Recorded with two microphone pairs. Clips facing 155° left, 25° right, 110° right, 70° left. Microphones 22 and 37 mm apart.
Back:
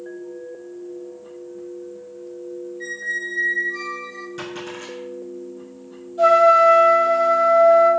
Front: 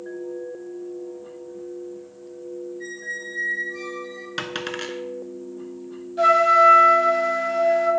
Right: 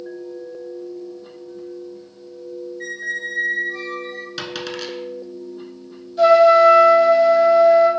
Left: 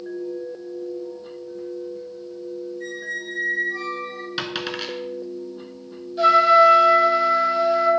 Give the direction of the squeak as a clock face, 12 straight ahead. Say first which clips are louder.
Back 5 dB, right 4 dB; 5 o'clock.